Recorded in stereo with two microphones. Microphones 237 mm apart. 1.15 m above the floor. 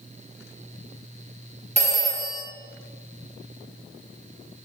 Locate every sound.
1.8 s a phone ringing: 30° right (ahead or behind), 0.8 m